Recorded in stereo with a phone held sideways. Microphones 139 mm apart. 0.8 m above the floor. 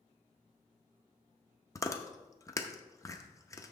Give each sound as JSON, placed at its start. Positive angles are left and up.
{"t": 1.8, "sound": "chewing", "side_deg": 20, "distance_m": 0.6}